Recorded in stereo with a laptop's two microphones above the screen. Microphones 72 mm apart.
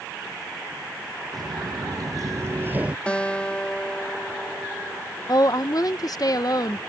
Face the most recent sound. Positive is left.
turn(degrees=60)  # may be behind; listen again after turning